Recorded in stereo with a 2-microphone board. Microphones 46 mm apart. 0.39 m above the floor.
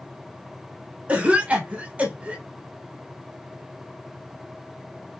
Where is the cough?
20° right (ahead or behind), 1.1 m.